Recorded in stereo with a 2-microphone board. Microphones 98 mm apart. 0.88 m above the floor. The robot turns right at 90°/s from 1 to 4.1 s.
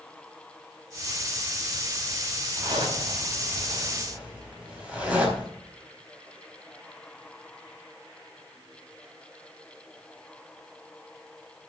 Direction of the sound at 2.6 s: 30° right (ahead or behind).